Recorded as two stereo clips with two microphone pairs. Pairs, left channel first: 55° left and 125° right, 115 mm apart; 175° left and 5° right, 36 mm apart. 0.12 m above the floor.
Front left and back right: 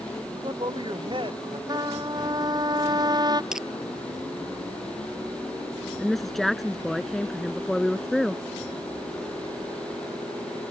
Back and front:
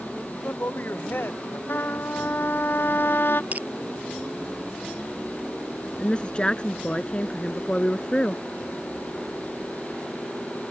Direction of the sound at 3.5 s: 40° right.